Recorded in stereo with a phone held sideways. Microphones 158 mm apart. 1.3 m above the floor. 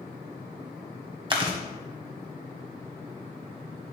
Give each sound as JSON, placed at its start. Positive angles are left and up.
{"t": 1.3, "sound": "chewing", "side_deg": -30, "distance_m": 1.3}